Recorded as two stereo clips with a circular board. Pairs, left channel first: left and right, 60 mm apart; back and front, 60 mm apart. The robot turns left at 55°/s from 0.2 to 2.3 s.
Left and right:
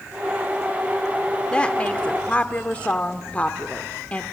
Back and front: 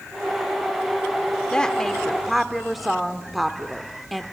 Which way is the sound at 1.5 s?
130° left.